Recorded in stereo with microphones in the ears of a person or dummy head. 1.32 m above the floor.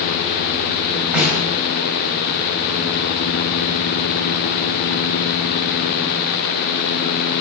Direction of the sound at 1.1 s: 5° right (ahead or behind).